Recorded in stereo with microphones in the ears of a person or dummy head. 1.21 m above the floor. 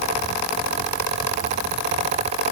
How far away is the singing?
I don't hear singing.